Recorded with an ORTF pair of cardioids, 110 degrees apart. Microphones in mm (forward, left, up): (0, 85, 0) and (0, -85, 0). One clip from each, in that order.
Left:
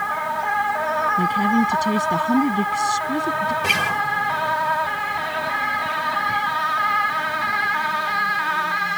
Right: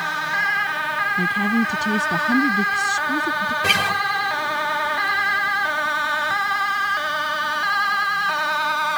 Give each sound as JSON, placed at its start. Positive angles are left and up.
{"t": 1.2, "sound": "a woman speaking", "azimuth_deg": 5}
{"t": 3.6, "sound": "a guitar", "azimuth_deg": -10}